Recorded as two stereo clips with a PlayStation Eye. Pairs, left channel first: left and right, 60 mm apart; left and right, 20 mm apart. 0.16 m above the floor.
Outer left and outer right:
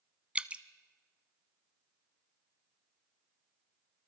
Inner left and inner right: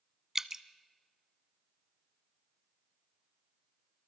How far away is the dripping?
About 0.7 m.